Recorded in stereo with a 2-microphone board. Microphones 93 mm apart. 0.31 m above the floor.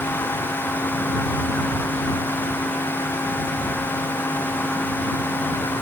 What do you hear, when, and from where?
Only background noise.